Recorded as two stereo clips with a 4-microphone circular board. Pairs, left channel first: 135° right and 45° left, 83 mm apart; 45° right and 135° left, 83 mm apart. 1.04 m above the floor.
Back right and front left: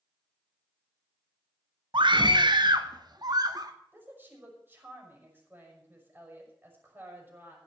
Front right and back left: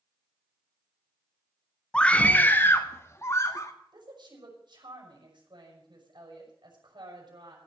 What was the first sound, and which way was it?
A scream, 35° left.